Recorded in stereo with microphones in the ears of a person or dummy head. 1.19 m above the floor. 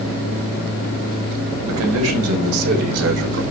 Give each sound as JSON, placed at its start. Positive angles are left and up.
{"t": 1.7, "sound": "a man speaking", "side_deg": -80, "distance_m": 4.0}